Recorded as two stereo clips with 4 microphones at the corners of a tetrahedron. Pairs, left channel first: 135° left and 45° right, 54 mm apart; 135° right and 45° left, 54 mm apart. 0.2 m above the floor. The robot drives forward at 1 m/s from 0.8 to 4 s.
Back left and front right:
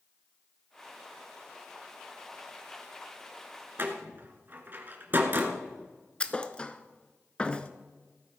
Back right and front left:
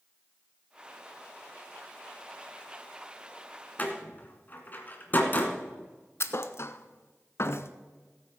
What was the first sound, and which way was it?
A door slam, 80° right.